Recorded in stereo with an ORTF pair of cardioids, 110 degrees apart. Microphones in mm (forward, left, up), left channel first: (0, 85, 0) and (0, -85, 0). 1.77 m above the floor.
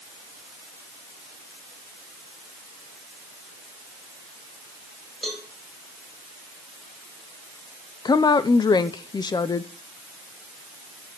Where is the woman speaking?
25° left, 0.9 m.